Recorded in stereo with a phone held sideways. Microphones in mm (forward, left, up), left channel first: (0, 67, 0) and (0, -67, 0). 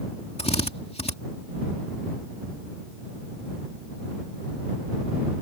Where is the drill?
50° left (ahead or behind).